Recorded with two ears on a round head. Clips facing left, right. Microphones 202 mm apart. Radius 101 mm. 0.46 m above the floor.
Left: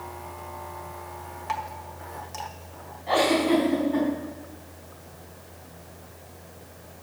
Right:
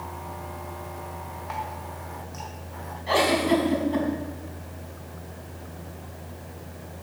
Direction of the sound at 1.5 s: 50° left (ahead or behind).